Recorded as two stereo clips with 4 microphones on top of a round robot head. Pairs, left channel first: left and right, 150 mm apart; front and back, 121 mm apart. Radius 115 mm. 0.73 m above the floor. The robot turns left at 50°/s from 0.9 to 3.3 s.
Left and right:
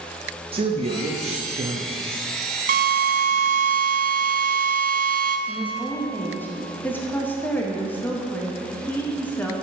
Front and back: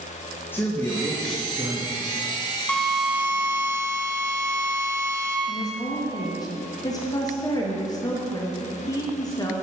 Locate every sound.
0.5 s a man speaking: 65° right, 1.1 m; by 2.0 s 120° right, 1.1 m
2.7 s a drill: 80° right, 0.6 m; by 5.4 s 110° right, 0.6 m
5.5 s a woman speaking: 20° left, 1.2 m